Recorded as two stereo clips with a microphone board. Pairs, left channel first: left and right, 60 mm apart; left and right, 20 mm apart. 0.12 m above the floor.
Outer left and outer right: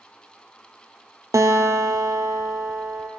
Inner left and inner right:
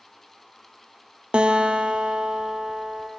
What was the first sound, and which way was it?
A guitar, 65° right (ahead or behind).